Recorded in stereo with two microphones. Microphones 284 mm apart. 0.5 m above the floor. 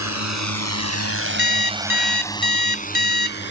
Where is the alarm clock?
35° left (ahead or behind).